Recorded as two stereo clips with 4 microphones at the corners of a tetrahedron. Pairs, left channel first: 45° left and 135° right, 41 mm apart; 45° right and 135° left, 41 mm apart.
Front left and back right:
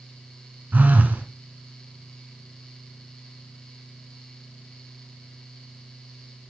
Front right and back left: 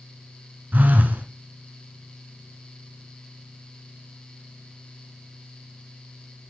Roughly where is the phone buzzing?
Behind.